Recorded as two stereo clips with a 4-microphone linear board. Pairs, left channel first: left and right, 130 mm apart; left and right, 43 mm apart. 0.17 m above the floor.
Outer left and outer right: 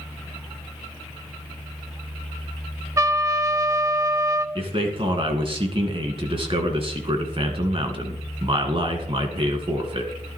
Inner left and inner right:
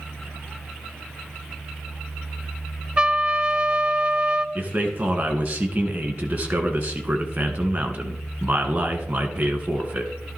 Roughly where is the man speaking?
Right.